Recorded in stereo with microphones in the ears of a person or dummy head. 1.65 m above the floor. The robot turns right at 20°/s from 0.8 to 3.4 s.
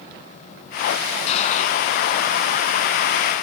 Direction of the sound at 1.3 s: 35° left (ahead or behind).